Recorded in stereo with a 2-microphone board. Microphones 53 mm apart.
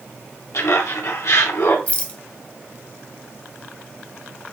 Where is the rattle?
25° left (ahead or behind), 1.3 m.